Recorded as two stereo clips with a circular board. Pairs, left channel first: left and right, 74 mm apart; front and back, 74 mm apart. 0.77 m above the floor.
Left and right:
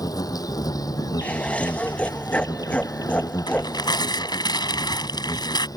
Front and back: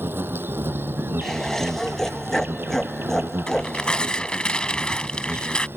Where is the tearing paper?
75° left.